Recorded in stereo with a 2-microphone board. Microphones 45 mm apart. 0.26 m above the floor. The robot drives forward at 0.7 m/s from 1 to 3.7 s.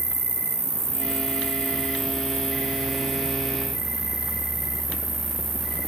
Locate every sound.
0.0 s an insect: 10° left (ahead or behind), 1.0 m; by 5.9 s 5° left (ahead or behind), 3 m